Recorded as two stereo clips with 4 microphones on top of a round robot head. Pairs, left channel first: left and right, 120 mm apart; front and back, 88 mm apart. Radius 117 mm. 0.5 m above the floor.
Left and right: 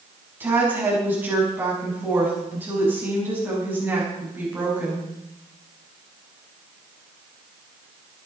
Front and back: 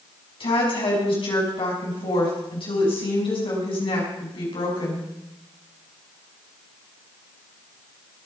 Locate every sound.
0.4 s a woman speaking: 15° right, 6 m